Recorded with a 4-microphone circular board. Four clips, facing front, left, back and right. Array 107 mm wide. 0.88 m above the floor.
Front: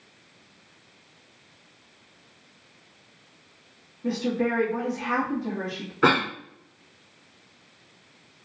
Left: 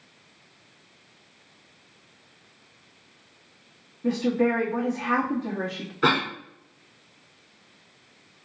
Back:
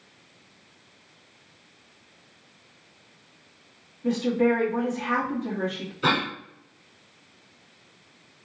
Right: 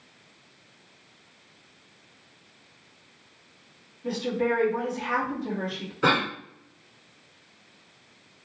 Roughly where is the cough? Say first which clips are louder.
Even, front 4 dB; ahead.